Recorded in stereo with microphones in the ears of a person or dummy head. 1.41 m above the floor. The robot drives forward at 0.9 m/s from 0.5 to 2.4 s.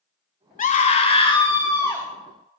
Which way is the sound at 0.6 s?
45° left (ahead or behind).